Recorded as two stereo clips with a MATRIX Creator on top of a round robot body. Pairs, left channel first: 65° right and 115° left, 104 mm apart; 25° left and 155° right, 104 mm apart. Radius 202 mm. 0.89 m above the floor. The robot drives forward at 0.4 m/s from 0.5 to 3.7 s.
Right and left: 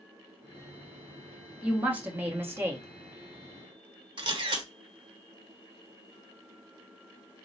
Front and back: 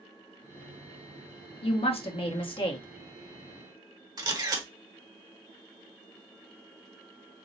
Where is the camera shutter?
150° left, 1.4 m.